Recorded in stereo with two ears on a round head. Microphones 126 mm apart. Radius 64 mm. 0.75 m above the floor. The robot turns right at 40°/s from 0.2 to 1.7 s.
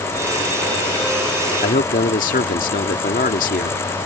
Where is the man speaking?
60° left (ahead or behind).